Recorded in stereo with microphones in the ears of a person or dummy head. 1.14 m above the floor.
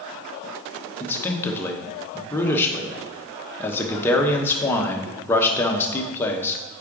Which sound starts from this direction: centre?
A man speaking, at 1.0 s.